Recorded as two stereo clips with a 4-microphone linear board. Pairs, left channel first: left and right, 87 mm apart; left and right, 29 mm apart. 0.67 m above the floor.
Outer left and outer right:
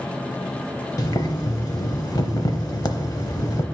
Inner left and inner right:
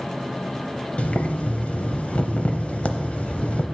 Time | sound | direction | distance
1.0 | boiling | 50° left (ahead or behind) | 0.7 m